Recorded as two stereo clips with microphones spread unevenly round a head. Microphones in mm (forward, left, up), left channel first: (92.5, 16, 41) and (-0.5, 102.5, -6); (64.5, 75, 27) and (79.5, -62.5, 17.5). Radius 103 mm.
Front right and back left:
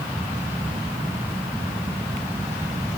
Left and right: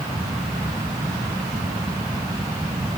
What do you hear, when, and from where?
Only background noise.